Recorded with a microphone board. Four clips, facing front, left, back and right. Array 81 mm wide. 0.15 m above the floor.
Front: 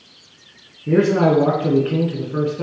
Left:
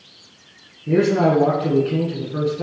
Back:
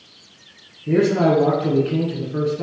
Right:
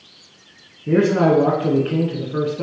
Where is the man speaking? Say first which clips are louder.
Right 1 dB, front 1 dB; 40° right, 1.3 m.